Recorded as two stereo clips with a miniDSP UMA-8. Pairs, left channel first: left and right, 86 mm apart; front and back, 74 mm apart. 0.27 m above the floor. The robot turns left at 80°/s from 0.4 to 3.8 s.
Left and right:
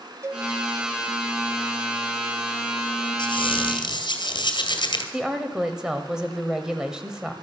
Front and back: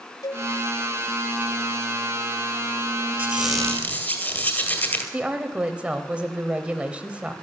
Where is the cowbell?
35° right, 0.6 m; by 0.5 s 40° right, 0.6 m.